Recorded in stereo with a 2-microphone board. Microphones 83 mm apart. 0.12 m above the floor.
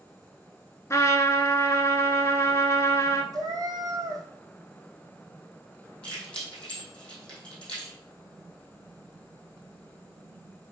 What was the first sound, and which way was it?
A trumpet, 35° left (ahead or behind).